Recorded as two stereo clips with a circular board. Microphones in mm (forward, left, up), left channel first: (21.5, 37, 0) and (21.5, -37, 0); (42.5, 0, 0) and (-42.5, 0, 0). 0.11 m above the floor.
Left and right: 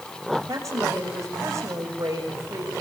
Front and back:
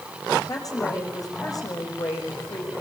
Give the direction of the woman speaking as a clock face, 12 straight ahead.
1 o'clock.